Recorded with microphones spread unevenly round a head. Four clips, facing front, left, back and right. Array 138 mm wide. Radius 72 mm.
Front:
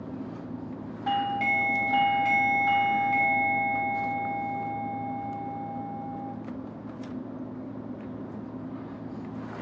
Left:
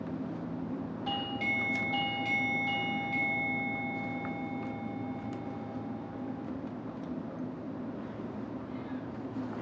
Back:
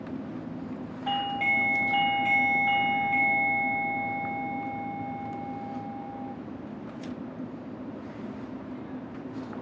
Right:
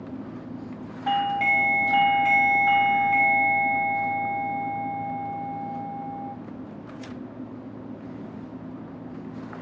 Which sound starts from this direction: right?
A doorbell, at 1.1 s.